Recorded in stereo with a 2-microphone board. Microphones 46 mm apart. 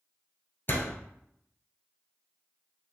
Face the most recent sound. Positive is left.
turn(degrees=45)  # may be behind; listen again after turning